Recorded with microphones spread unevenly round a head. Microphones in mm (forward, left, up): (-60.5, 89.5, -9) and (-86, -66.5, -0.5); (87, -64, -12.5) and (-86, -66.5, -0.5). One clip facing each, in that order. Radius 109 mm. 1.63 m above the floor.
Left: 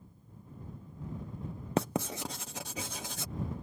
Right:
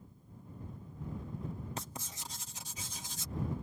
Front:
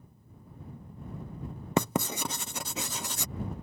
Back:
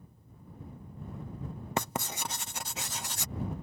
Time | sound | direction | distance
1.8 | writing | 30° left | ?